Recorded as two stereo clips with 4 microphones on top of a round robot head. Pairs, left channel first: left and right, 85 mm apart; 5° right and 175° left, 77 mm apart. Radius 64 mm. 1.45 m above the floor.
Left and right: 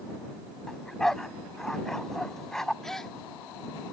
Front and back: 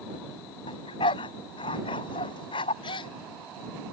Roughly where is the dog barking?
Ahead.